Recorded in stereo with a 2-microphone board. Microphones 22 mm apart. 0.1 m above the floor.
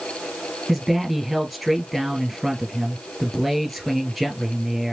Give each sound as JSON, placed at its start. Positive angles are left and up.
{"t": 0.7, "sound": "a man speaking", "side_deg": -10, "distance_m": 1.6}